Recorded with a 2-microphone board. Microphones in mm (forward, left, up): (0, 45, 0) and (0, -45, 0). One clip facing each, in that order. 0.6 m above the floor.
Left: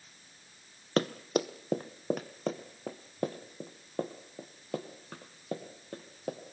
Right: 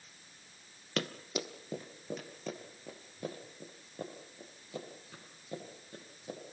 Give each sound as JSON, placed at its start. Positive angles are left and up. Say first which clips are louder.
{"t": 1.0, "sound": "running footsteps", "louder": "left 8 dB", "side_deg": 35, "distance_m": 1.1}